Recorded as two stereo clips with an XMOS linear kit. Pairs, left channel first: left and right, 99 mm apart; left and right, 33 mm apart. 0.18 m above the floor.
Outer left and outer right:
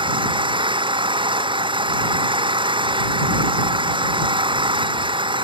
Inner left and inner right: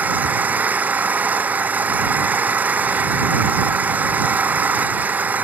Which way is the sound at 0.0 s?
50° right (ahead or behind).